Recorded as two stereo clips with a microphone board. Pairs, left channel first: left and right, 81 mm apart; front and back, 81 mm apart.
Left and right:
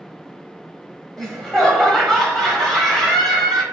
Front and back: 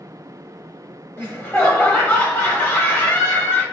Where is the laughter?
10° left, 1.2 m.